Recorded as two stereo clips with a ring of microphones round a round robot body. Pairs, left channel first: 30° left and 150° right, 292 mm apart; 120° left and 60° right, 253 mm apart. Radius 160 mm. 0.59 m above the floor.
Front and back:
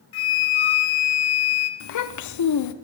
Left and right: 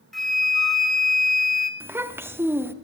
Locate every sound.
0.1 s a flute: 30° left, 1.2 m
1.8 s a child speaking: 20° left, 0.6 m